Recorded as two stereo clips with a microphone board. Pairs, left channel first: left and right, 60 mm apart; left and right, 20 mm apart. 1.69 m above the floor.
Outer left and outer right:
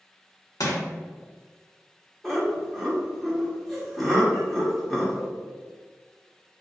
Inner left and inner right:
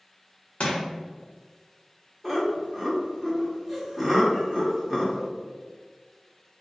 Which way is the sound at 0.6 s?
65° left (ahead or behind).